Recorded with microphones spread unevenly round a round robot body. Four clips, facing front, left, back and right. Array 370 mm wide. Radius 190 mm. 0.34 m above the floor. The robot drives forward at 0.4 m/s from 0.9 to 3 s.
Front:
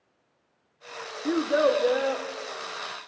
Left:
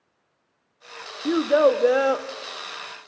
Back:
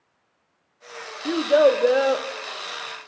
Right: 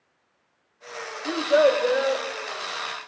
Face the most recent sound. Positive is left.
turn(degrees=150)